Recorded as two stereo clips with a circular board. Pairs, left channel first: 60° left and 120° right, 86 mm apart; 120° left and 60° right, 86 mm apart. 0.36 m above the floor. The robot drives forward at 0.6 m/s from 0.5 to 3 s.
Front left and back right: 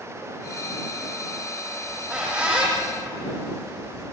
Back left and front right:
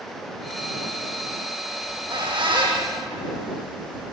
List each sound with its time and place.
1.8 s a squeak: 45° right, 9 m